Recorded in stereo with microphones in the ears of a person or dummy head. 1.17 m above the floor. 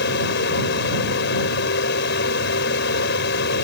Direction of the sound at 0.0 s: 65° left (ahead or behind).